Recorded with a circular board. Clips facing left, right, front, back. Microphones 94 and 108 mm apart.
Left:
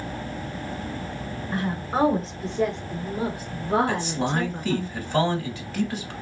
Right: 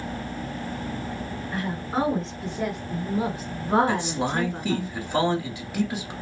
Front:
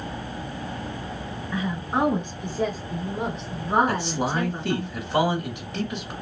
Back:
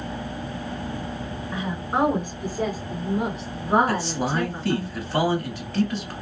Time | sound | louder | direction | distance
1.5 | a woman speaking | left 2 dB, even | 120° left | 1.2 m
3.9 | a man speaking | even, back 1 dB | 40° right | 1.4 m